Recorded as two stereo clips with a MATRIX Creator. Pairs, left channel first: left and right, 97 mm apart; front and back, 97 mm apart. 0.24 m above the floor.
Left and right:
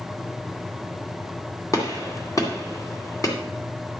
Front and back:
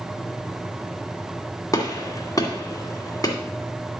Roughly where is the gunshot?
Ahead left.